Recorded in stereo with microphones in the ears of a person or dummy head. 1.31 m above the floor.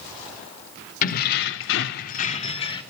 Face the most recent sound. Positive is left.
turn(degrees=25)  # may be behind; listen again after turning